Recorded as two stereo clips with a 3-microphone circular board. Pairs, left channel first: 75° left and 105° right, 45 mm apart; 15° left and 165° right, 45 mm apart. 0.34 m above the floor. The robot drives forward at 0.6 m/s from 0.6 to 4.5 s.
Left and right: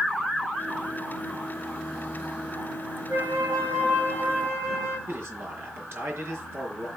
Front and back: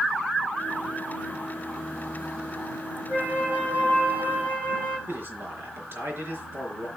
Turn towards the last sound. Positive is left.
turn(degrees=-135)